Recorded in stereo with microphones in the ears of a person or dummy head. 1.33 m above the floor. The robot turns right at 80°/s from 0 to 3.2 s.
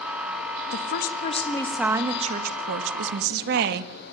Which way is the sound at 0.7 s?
95° left.